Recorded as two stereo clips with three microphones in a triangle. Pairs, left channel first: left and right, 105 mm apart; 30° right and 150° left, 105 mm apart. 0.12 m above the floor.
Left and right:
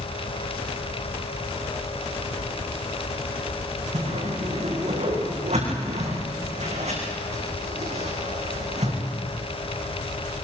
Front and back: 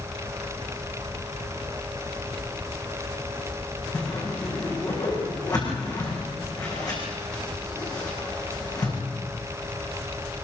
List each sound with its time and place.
3.9 s a whoosh: 80° right, 7 m